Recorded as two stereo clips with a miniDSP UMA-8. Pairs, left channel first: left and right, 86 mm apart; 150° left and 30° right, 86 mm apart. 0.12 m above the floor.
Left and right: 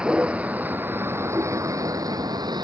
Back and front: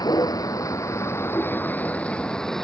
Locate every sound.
0.0 s a vehicle: 170° right; by 2.6 s 125° right